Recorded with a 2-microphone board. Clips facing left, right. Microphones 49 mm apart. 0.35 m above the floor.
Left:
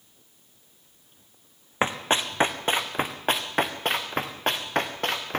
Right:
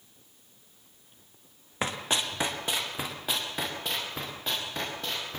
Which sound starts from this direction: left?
Running footsteps, at 1.8 s.